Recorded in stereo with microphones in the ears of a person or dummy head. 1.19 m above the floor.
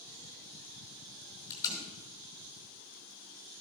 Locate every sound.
1.5 s tape being pulled: 15° left (ahead or behind), 4.5 m